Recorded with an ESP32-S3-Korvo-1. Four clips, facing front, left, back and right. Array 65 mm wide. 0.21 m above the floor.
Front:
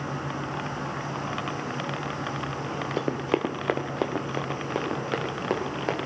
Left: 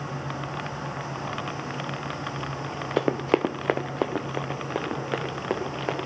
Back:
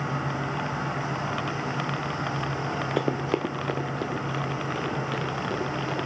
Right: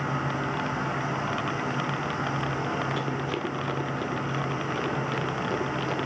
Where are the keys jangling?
I don't hear keys jangling.